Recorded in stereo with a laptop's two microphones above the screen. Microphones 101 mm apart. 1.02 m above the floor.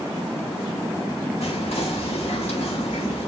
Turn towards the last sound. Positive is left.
turn(degrees=85)